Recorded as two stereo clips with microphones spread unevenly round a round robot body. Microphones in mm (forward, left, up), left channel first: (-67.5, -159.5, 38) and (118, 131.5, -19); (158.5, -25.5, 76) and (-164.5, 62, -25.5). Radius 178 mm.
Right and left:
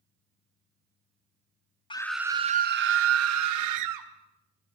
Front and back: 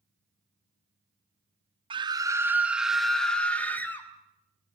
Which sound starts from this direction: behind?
A scream, at 1.9 s.